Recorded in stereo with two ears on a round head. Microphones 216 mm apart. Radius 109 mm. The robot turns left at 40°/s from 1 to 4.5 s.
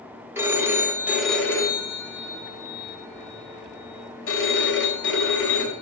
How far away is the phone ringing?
About 1.7 m.